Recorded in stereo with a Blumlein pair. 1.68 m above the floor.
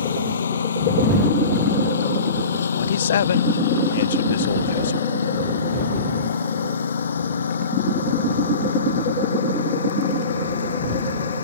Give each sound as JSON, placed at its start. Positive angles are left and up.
{"t": 0.0, "sound": "a lawn mower", "azimuth_deg": 70}
{"t": 2.8, "sound": "a man speaking", "azimuth_deg": 65}